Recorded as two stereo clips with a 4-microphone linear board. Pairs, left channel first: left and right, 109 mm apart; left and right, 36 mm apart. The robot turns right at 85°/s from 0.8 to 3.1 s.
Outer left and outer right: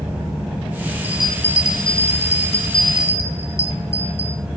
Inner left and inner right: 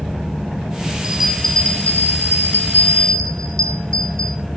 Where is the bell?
20° right, 2.5 m; by 4.4 s 155° left, 2.5 m.